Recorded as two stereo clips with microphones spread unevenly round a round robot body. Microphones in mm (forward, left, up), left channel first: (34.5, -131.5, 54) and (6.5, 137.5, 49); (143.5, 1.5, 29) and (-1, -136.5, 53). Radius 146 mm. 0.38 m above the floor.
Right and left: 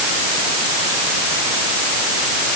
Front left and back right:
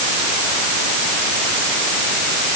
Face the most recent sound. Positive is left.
No sound to turn to.